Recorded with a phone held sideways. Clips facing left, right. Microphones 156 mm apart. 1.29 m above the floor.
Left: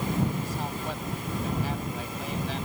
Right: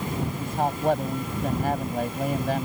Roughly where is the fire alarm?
No fire alarm in this recording.